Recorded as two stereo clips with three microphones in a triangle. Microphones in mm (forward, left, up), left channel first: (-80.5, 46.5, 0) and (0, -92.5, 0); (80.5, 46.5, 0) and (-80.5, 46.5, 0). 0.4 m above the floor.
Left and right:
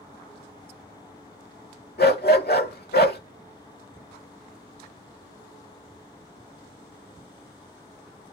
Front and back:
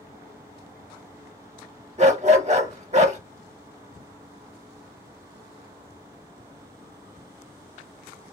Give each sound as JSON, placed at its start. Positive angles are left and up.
{"t": 2.0, "sound": "a dog barking", "azimuth_deg": 130, "distance_m": 0.9}